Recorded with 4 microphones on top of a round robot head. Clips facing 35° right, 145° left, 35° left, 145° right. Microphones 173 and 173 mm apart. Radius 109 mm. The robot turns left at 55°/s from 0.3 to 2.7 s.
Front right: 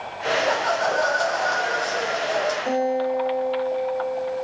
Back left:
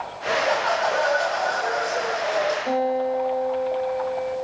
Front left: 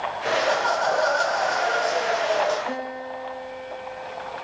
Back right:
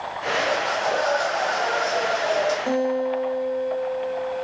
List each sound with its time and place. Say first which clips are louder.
0.2 s laughter: even, front left 1 dB; 55° left, 3 m; by 2.6 s 70° right, 3 m
2.7 s a guitar: even, back right 9 dB; 100° right, 3 m